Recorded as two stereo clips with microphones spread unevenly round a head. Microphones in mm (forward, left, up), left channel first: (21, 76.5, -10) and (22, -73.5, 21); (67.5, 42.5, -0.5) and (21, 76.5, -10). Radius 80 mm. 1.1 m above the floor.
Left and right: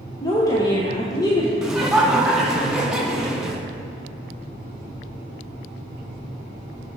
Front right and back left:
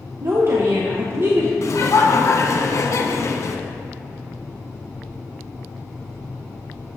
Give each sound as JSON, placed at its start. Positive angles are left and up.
{"t": 0.2, "sound": "a woman speaking", "azimuth_deg": 140, "distance_m": 0.9}
{"t": 1.6, "sound": "laughter", "azimuth_deg": 0, "distance_m": 1.2}